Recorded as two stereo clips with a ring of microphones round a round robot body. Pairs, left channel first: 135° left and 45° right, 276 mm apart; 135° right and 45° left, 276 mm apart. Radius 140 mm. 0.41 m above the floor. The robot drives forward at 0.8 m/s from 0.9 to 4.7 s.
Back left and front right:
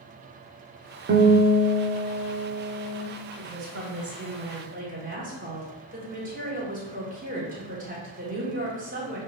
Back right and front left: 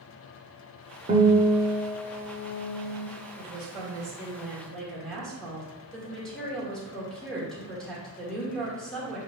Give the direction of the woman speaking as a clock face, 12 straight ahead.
1 o'clock.